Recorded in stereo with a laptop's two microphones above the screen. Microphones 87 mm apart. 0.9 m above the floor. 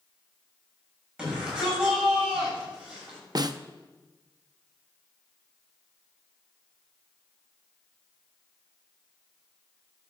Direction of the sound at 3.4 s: 50° right (ahead or behind).